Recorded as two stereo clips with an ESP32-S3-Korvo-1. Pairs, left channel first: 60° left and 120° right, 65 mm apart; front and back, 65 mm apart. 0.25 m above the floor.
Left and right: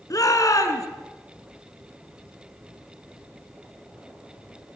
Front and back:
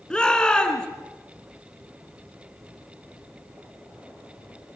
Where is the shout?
75° left, 3.5 m.